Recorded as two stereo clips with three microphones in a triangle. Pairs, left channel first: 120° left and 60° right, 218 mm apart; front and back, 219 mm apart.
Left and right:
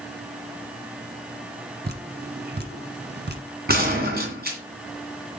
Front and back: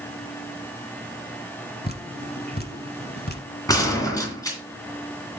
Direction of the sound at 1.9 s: 30° right.